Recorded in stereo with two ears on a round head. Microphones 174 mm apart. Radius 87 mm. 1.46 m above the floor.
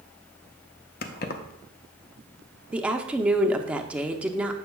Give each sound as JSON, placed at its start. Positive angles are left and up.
{"t": 1.0, "sound": "keys jangling", "side_deg": 50, "distance_m": 0.6}
{"t": 2.7, "sound": "a woman speaking", "side_deg": -5, "distance_m": 0.6}